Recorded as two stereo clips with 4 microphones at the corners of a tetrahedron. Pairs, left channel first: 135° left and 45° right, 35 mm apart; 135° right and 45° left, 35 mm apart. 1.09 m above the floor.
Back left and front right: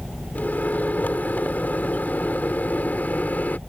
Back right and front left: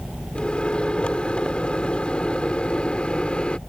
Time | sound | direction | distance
0.3 | a microwave | 165° left | ?